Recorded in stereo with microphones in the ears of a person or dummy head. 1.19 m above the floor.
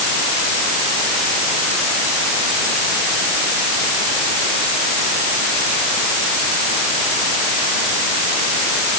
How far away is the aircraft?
No aircraft in this recording.